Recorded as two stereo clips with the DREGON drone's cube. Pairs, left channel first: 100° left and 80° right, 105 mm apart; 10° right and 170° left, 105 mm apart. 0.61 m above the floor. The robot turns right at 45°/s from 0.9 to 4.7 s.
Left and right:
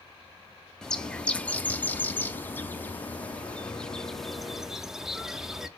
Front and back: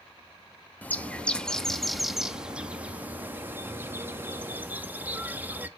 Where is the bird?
30° left, 0.6 m; by 5.7 s 155° right, 0.6 m.